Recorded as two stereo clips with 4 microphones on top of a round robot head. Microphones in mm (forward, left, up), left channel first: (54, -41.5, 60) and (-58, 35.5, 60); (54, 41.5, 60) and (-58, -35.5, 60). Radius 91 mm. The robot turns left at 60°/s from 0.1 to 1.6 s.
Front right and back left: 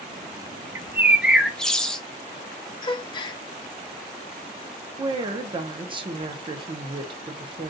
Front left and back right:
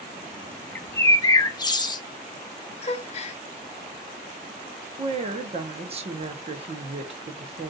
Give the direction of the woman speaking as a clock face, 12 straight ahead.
6 o'clock.